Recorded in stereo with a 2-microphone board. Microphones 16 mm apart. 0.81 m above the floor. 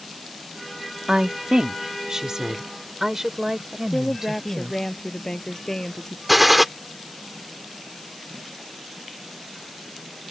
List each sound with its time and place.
1.1 s a woman speaking: 60° right (ahead or behind); by 4.7 s 20° right (ahead or behind)
3.7 s a woman speaking: 30° left (ahead or behind)
6.3 s a gunshot: 10° right (ahead or behind)